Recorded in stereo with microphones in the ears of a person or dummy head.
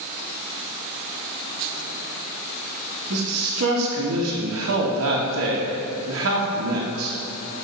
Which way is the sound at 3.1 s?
85° right.